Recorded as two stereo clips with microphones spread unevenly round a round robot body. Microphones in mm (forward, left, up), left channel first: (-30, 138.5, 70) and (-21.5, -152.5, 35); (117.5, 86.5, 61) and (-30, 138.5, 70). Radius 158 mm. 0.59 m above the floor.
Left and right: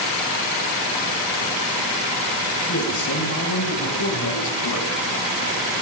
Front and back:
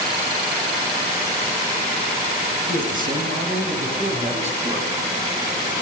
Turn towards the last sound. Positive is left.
turn(degrees=110)